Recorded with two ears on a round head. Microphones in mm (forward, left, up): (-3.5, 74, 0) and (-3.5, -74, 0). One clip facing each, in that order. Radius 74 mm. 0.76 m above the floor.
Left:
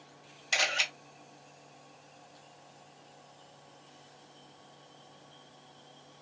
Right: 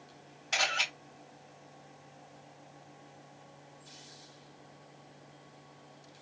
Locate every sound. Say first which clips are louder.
0.5 s a camera shutter: even; 35° left (ahead or behind), 1.6 m